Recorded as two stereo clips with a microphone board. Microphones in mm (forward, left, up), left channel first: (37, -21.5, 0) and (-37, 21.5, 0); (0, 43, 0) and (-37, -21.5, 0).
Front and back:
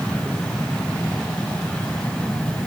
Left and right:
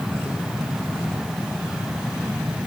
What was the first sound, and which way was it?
Only background noise.